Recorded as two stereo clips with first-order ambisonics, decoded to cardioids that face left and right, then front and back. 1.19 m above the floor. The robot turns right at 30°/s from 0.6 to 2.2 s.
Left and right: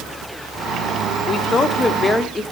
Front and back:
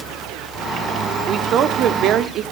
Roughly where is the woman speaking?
Behind left.